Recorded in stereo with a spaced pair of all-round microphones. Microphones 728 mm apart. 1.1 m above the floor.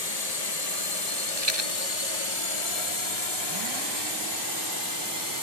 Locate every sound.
0.0 s a drone: 65° left (ahead or behind); by 5.4 s 30° left (ahead or behind)
1.4 s a rattle: 40° right (ahead or behind)